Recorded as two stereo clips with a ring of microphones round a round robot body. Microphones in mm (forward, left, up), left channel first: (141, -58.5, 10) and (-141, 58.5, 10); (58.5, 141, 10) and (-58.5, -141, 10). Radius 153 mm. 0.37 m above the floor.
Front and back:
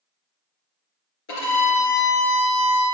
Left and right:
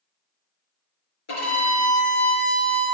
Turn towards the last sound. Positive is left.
turn(degrees=30)